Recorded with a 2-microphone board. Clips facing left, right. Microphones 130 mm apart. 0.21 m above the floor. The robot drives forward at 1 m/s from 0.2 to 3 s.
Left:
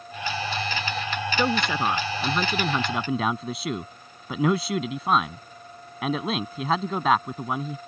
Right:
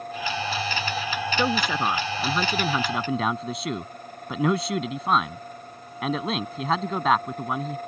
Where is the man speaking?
Centre (ahead or behind).